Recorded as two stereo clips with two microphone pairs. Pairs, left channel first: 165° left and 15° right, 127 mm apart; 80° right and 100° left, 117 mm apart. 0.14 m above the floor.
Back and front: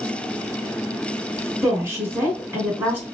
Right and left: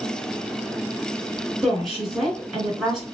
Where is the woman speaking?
20° left, 1.7 m.